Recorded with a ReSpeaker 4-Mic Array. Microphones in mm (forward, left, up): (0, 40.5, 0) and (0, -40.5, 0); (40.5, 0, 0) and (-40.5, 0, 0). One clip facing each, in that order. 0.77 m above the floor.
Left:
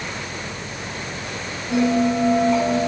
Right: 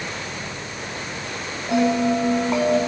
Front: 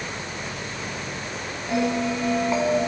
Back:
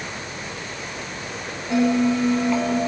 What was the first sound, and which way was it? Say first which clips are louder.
A bell: even, back 5 dB; 65° right.